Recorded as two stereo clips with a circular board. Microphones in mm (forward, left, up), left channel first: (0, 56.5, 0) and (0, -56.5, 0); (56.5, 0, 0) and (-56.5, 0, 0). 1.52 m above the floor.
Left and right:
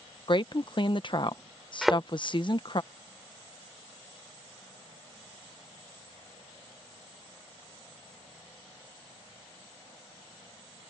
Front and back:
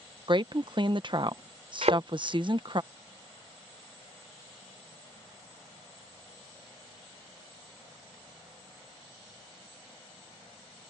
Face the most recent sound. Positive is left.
turn(degrees=180)